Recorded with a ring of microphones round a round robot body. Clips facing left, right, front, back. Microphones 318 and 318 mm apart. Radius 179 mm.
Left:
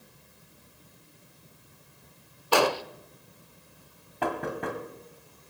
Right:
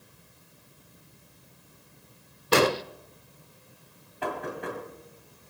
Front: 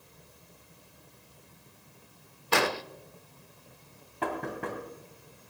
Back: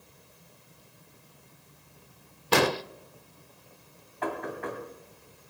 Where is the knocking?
55° left, 1.9 m.